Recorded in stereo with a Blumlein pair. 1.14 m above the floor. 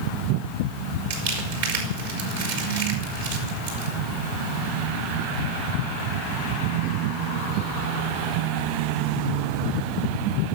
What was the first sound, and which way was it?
Crumpling, 60° right.